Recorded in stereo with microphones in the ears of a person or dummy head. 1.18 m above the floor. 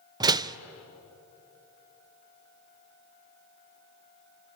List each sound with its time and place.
0.2 s a door slam: 20° right (ahead or behind), 0.5 m